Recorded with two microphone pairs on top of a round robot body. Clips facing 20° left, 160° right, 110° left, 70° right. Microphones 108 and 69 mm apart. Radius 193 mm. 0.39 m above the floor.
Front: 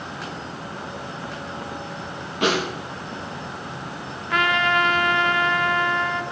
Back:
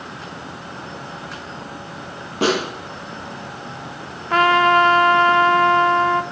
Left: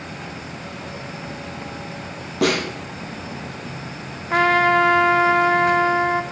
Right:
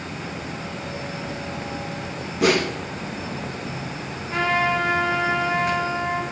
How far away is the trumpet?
About 0.5 m.